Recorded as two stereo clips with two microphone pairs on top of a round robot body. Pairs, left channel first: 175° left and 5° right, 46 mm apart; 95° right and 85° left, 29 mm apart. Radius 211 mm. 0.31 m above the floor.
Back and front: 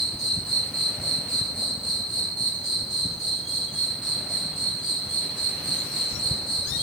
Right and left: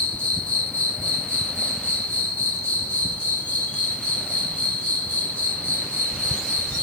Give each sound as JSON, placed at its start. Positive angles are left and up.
{"t": 0.0, "sound": "an insect", "azimuth_deg": -105, "distance_m": 3.0}